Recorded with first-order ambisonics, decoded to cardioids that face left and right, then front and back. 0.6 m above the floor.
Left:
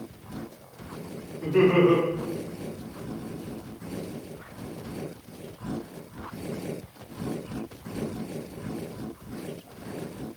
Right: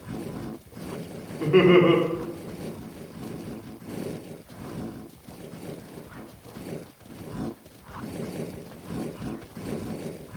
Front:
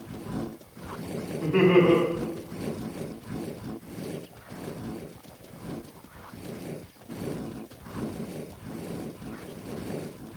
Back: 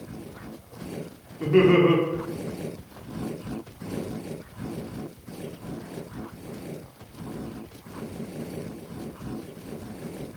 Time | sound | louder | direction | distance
1.4 | laughter | right 3 dB, back 2 dB | 120° right | 0.9 m